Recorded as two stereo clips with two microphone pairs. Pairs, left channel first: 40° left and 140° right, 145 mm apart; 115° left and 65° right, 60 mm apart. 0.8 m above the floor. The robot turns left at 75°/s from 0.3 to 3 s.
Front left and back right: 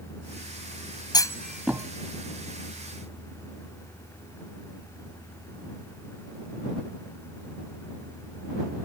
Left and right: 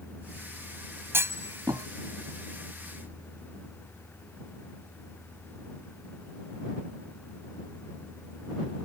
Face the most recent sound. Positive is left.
turn(degrees=-160)